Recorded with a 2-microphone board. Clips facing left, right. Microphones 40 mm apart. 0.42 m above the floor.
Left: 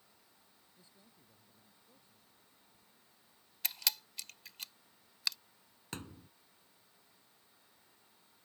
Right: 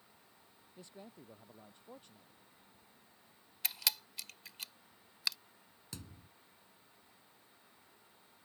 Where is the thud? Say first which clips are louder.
Left 6 dB; 50° left (ahead or behind).